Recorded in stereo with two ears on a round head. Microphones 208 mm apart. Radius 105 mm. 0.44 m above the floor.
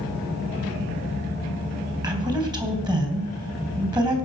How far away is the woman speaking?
About 3 m.